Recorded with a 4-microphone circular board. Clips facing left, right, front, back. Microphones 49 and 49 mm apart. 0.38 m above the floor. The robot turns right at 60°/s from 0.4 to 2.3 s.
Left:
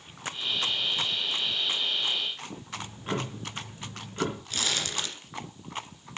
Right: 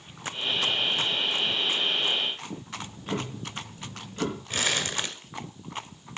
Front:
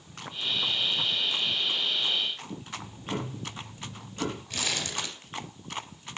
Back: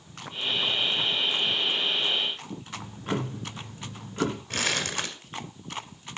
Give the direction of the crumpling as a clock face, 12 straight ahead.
5 o'clock.